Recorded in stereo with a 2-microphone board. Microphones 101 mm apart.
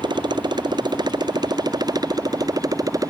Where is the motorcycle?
45° right (ahead or behind); by 3.1 s 35° right (ahead or behind).